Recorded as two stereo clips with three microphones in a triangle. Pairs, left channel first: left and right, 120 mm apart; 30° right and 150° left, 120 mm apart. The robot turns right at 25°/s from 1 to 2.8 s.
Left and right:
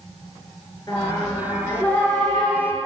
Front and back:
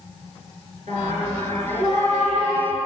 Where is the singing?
145° left, 3 m; by 2.8 s 175° right, 3 m.